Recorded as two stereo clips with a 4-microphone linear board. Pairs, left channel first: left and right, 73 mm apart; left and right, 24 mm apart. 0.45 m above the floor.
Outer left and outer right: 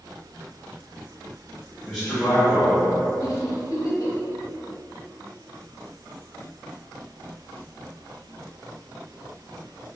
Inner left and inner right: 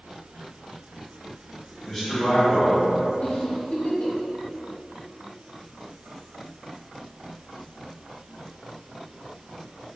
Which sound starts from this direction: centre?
A man speaking, at 1.8 s.